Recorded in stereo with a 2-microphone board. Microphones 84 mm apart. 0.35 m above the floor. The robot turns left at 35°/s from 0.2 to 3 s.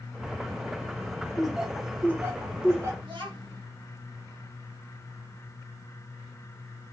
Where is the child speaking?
70° right (ahead or behind), 2.5 m.